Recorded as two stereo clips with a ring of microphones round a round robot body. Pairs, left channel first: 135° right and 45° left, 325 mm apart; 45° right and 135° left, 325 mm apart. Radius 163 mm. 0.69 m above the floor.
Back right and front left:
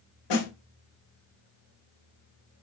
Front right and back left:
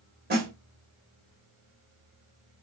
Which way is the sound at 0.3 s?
160° right.